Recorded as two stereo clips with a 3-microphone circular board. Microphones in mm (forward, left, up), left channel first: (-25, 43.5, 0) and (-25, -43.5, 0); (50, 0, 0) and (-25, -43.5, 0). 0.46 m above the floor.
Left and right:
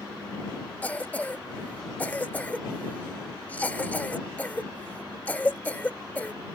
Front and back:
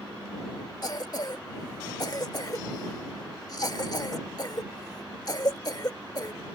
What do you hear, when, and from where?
0.8 s a cough: 25° left